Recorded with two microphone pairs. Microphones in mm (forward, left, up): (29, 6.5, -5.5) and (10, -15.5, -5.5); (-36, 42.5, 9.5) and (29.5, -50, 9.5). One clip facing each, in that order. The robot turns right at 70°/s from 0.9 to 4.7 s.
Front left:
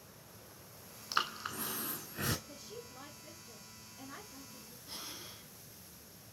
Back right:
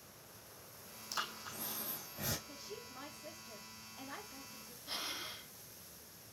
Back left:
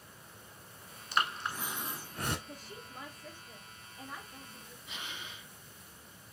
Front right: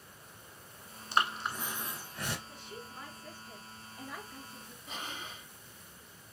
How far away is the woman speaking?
About 2.5 m.